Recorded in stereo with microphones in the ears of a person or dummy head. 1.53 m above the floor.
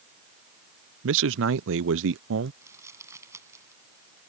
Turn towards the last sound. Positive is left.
turn(degrees=-15)  # may be behind; listen again after turning